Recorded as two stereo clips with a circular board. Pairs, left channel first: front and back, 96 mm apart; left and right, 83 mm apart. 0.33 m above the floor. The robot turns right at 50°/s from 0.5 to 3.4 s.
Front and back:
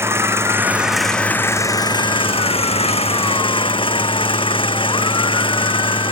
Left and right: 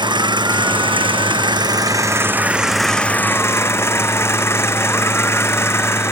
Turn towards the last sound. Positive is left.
turn(degrees=30)